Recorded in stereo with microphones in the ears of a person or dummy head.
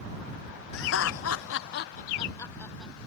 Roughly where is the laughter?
Left.